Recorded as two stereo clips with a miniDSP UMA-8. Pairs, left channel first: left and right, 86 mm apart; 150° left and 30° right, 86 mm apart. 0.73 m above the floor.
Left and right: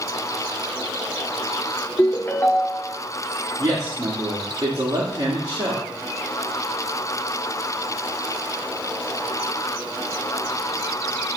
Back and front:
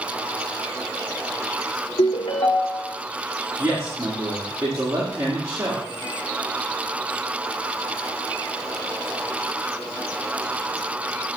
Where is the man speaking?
80° right, 1.5 m.